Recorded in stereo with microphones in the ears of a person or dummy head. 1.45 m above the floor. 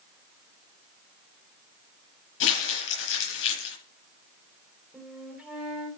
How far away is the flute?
About 4 m.